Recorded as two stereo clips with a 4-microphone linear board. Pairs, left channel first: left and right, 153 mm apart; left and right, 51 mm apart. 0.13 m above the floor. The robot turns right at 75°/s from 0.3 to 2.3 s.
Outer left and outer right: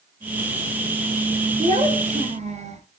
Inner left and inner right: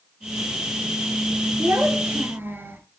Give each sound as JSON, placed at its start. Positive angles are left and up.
{"t": 1.6, "sound": "a child speaking", "azimuth_deg": -120, "distance_m": 1.8}